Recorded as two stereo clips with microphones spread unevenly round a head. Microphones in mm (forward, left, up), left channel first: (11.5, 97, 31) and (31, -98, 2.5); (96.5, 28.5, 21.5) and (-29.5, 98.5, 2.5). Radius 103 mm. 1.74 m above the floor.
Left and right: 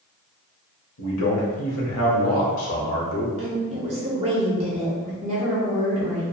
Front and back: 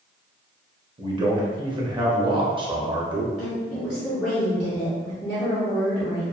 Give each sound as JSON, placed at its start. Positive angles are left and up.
{"t": 1.0, "sound": "a man speaking", "azimuth_deg": 90, "distance_m": 0.7}
{"t": 3.4, "sound": "a woman speaking", "azimuth_deg": -115, "distance_m": 0.7}